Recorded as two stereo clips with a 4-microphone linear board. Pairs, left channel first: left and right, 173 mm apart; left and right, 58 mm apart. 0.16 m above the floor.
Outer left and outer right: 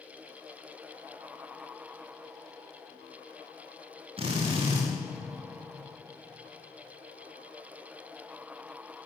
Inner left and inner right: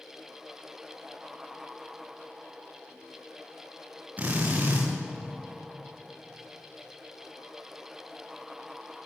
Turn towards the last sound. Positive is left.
turn(degrees=-30)  # may be behind; listen again after turning